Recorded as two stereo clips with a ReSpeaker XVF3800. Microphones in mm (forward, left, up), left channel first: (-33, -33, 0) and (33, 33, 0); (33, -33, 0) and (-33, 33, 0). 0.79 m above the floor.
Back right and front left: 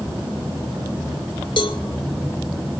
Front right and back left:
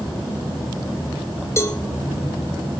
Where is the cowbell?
105° right, 2.5 m.